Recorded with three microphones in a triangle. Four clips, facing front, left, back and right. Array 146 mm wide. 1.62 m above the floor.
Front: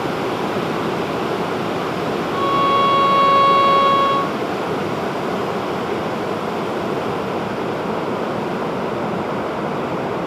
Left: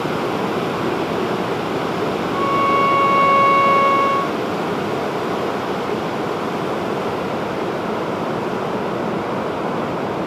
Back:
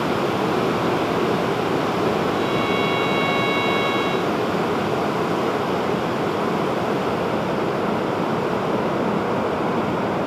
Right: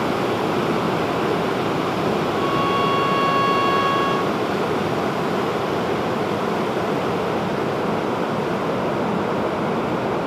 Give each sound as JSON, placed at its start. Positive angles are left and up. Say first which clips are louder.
{"t": 2.3, "sound": "a violin", "louder": "left 3 dB, front 4 dB", "azimuth_deg": 40}